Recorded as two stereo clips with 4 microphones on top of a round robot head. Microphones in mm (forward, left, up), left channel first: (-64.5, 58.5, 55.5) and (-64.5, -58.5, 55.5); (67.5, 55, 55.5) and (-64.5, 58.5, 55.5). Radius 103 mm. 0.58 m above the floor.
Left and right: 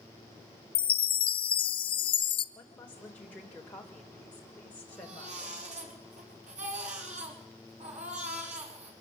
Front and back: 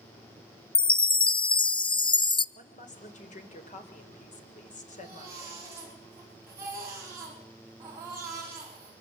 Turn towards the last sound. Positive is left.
turn(degrees=-110)